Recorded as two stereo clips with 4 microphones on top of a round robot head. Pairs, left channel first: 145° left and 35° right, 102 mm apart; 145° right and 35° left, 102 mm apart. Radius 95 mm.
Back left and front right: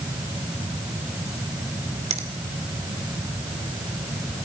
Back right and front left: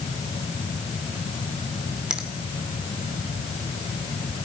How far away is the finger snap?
About 2.0 m.